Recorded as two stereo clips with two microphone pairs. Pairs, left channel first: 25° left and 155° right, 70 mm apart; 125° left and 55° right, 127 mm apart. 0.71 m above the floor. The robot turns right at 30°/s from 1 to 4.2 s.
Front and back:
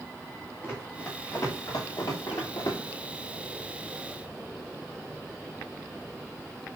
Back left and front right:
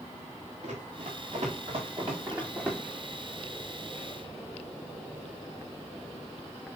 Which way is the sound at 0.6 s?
40° right.